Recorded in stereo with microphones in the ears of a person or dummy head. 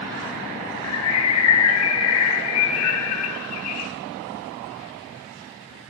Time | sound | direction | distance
0.8 | a bird | 75° left (ahead or behind) | 0.5 m